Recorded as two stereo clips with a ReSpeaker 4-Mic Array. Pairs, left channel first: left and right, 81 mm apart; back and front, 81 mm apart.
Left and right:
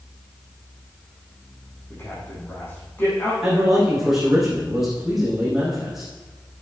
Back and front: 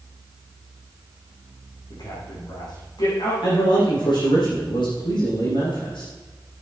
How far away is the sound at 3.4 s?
About 6 m.